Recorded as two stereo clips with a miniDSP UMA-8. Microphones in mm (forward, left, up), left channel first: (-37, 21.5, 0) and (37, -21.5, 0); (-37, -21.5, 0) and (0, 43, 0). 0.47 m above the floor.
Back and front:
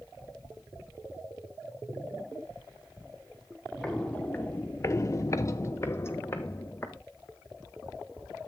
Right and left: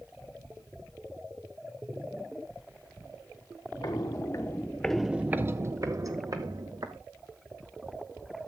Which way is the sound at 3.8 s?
130° right.